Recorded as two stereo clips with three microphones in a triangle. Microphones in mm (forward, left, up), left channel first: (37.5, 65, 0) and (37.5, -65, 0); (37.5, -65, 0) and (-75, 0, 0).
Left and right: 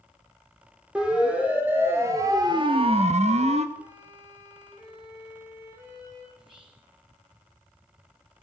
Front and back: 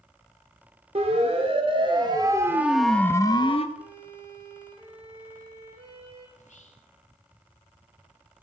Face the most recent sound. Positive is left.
turn(degrees=-40)